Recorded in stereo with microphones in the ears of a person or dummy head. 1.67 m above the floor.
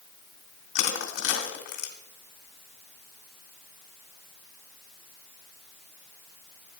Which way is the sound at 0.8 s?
50° left (ahead or behind).